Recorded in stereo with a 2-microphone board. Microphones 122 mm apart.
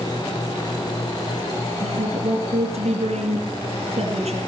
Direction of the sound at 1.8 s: 70° right (ahead or behind).